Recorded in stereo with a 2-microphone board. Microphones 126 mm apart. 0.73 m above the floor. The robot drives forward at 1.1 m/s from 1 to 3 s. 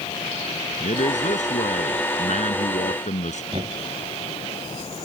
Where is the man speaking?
85° left; by 3.4 s 80° left.